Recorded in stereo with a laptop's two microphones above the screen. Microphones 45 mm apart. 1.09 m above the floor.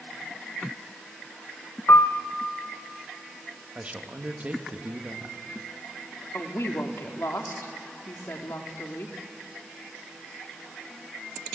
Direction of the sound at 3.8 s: 30° right (ahead or behind).